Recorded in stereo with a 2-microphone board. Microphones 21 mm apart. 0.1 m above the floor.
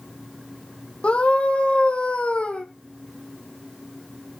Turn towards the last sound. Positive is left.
turn(degrees=70)  # may be behind; listen again after turning